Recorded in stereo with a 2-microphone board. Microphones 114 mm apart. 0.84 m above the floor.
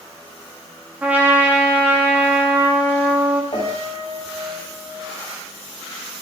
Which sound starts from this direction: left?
A piano, at 3.5 s.